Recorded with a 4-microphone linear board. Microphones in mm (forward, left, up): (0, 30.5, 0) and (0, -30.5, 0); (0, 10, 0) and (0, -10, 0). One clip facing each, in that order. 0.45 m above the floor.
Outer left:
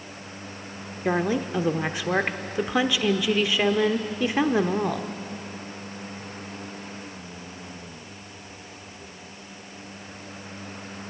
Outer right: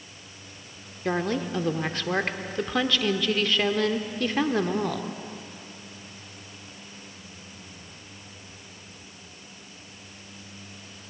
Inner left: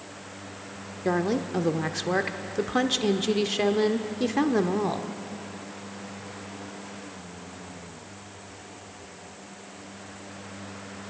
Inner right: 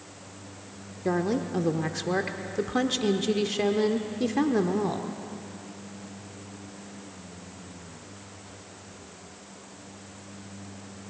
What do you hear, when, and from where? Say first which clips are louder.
1.1 s a woman speaking: outer left 2 dB, inner left 1 dB; 10° left (ahead or behind), 0.8 m